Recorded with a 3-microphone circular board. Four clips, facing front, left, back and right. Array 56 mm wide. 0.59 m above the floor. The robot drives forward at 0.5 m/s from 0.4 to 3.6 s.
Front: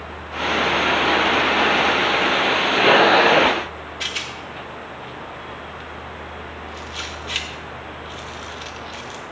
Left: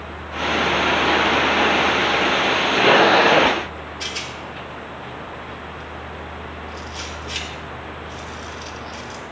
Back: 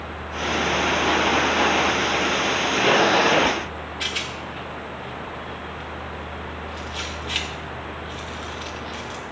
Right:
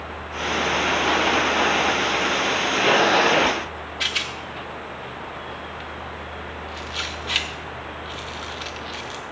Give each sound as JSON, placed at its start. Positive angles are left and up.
{"t": 4.0, "sound": "a rattle", "azimuth_deg": -80, "distance_m": 1.1}